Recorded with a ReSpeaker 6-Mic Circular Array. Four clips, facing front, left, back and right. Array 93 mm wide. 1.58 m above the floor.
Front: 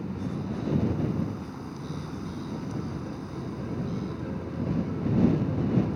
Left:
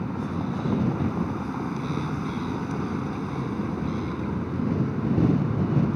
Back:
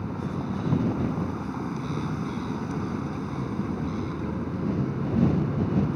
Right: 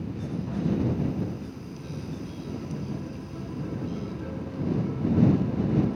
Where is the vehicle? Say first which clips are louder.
Left 4 dB, back 2 dB; 120° left.